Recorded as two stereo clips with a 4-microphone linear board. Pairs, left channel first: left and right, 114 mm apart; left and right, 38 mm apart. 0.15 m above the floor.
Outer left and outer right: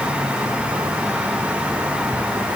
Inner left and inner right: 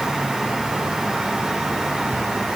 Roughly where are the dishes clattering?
No dishes clattering in this recording.